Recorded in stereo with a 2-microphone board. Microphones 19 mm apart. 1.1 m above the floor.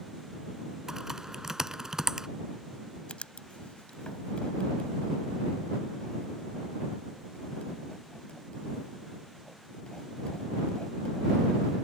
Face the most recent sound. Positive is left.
turn(degrees=85)